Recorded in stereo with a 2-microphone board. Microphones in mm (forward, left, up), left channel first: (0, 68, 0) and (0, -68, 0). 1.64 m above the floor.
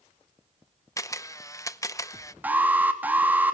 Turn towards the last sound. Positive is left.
turn(degrees=-10)  # may be behind; listen again after turning